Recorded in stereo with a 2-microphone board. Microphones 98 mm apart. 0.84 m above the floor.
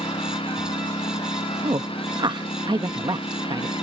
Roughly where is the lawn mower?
Left.